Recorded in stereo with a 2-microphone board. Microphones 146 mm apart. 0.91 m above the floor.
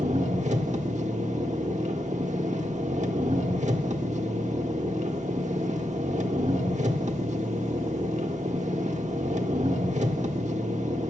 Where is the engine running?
50° right (ahead or behind), 1.1 m.